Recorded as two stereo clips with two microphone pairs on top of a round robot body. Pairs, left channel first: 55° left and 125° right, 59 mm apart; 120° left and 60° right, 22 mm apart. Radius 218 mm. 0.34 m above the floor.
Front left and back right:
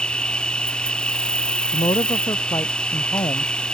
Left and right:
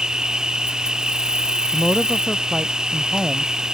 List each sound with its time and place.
0.0 s an insect: 15° right
1.7 s a woman speaking: 35° left